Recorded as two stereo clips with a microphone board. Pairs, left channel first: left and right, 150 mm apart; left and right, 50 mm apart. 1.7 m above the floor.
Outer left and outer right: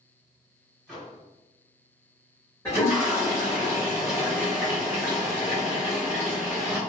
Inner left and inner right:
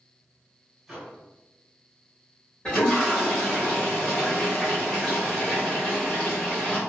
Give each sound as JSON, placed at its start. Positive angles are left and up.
{"t": 0.9, "sound": "a microwave", "side_deg": 0, "distance_m": 1.4}
{"t": 2.6, "sound": "a toilet flushing", "side_deg": 20, "distance_m": 1.4}